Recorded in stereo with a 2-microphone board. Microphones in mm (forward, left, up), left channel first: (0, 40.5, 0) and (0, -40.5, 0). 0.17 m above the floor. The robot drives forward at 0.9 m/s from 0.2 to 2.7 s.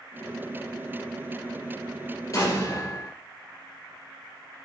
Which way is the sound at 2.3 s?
40° left (ahead or behind).